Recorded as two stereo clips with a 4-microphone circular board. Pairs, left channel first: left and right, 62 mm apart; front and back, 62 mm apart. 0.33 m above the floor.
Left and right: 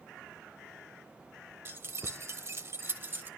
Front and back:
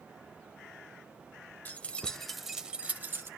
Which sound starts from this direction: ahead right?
Keys jangling, at 1.6 s.